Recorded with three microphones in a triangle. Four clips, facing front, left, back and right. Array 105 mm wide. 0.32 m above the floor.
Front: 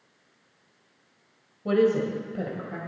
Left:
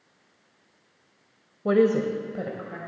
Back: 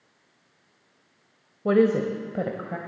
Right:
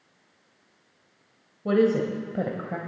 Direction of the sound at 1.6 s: 145° left.